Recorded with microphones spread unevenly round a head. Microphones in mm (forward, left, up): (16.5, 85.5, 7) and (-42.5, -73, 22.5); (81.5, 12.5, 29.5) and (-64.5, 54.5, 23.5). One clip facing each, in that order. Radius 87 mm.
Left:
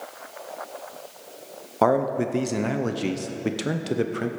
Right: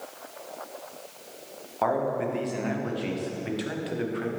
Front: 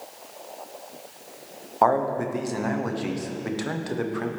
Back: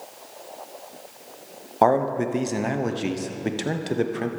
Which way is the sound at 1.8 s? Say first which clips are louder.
Left 5 dB, back 2 dB; 100° left.